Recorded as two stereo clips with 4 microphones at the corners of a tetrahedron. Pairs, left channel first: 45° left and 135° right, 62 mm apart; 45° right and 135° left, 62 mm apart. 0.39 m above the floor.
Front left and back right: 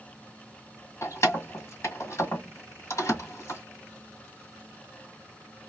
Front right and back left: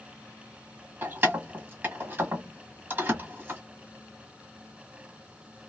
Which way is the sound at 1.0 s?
80° left.